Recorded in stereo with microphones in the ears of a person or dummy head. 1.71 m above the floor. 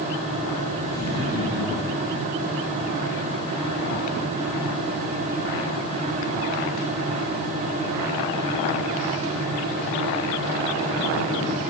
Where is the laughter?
15° right (ahead or behind), 5 m; by 2.1 s 10° right (ahead or behind), 5.5 m.